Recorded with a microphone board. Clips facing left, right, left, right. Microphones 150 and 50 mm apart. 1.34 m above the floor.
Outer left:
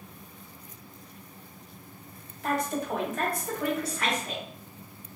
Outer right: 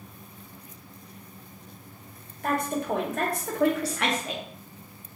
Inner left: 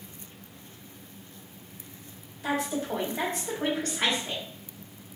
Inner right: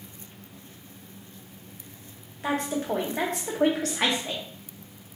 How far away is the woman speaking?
About 1.4 m.